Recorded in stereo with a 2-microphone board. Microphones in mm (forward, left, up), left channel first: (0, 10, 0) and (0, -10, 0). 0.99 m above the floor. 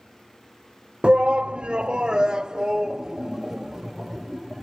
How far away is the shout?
About 0.6 m.